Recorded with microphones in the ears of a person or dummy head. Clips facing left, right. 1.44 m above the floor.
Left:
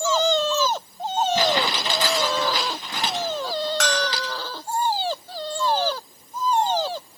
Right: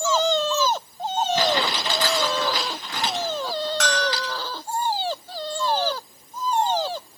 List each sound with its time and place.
1.4 s crumpling: 25° left (ahead or behind), 9.5 m
3.8 s a bell: 70° left (ahead or behind), 6 m